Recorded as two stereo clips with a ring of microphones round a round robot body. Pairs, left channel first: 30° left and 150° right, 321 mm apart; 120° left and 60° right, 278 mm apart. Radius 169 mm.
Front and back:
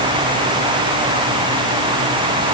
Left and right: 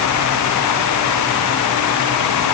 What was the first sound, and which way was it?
Only background noise.